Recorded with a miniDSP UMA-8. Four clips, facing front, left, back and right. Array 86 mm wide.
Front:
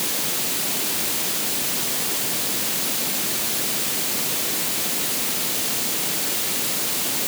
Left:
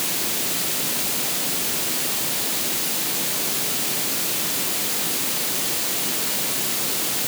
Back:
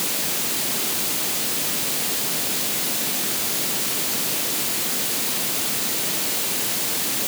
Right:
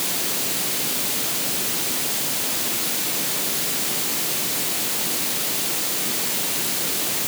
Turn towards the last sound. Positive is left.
No sound to turn to.